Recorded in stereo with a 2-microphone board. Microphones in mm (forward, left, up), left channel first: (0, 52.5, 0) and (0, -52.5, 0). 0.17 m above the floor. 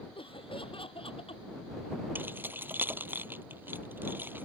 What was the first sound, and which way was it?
Laughter, 60° left (ahead or behind).